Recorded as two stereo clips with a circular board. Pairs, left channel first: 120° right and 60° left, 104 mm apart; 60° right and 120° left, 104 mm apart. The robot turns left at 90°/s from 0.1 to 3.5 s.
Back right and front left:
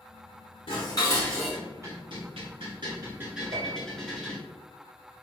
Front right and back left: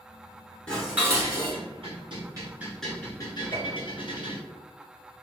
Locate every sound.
0.7 s dishes clattering: 140° right, 1.6 m; by 4.4 s 35° right, 1.6 m
3.5 s a piano: straight ahead, 1.0 m